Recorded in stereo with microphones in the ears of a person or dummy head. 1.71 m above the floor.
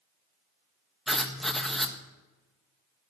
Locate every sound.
1.1 s writing: centre (ahead or behind), 1.5 m